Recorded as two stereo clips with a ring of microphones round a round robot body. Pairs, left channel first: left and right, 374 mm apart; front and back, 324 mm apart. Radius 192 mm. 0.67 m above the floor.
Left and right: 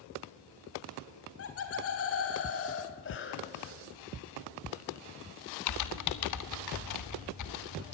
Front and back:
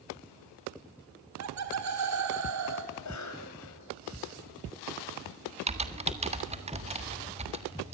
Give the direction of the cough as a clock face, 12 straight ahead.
11 o'clock.